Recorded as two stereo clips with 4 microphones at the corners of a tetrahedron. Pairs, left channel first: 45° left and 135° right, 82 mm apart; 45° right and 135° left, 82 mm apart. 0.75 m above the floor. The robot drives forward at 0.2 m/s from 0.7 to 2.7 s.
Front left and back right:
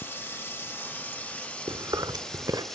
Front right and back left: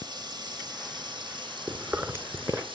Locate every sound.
0.0 s running water: 110° left, 0.9 m; by 2.8 s 130° left, 1.1 m
1.7 s chewing: 160° right, 1.8 m; by 2.6 s 165° right, 1.9 m